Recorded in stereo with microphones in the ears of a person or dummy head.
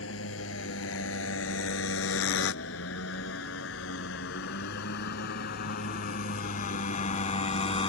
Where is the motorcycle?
85° left; by 7.9 s 35° left (ahead or behind).